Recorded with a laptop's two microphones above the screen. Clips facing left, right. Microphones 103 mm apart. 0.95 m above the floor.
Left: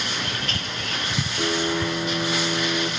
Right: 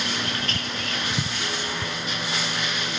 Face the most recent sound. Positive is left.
turn(degrees=50)  # may be behind; listen again after turning